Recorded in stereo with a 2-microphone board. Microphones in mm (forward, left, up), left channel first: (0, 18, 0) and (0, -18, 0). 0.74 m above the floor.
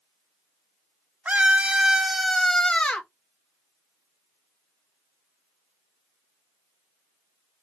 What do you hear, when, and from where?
1.2 s a scream: 45° right (ahead or behind), 1.4 m; by 3.1 s 40° left (ahead or behind), 1.3 m